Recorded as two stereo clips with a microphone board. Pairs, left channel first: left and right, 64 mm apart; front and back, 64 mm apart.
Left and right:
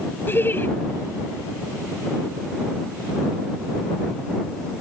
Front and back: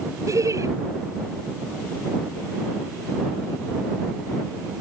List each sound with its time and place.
0.3 s laughter: 145° left